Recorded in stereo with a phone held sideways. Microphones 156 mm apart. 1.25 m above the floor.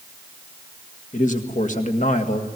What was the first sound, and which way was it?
A man speaking, 55° left (ahead or behind).